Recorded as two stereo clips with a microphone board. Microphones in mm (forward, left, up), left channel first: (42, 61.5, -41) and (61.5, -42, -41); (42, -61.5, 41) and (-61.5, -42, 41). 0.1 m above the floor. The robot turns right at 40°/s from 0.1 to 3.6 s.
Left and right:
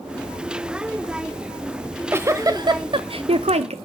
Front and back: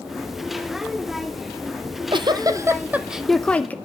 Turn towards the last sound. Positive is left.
turn(degrees=-90)